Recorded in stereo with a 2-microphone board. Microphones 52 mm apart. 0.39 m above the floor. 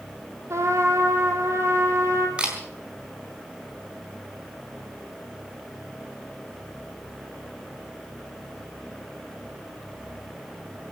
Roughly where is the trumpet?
Right.